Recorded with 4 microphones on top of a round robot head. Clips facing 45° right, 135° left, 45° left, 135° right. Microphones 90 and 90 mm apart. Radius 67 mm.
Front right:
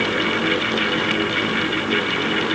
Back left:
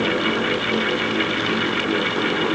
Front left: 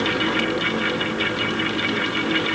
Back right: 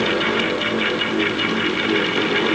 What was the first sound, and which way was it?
Only background noise.